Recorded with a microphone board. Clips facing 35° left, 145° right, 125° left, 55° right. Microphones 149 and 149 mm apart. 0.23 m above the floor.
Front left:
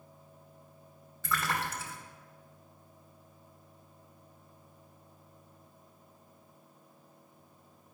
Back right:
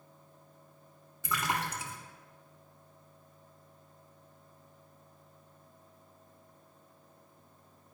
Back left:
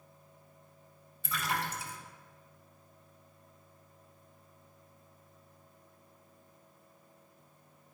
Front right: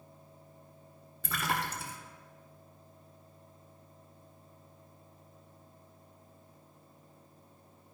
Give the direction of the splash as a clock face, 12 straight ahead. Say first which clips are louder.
Even, front right 1 dB; 2 o'clock.